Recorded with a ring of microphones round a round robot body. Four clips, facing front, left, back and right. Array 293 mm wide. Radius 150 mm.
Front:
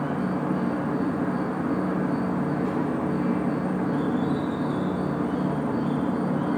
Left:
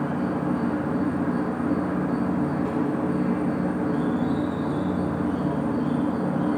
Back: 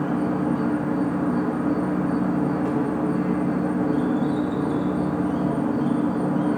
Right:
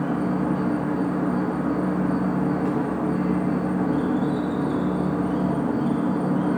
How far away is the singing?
No singing in this recording.